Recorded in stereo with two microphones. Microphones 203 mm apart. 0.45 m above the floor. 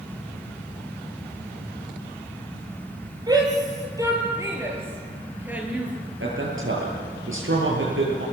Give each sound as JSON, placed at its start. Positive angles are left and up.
{"t": 3.3, "sound": "a shout", "side_deg": -20, "distance_m": 9.0}
{"t": 6.2, "sound": "a man speaking", "side_deg": -80, "distance_m": 8.5}